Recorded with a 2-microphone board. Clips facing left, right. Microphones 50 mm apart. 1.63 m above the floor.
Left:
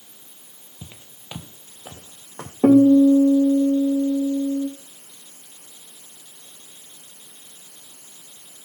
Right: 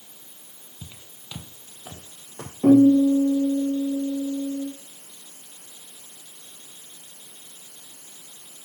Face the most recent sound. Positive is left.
turn(degrees=65)  # may be behind; listen again after turning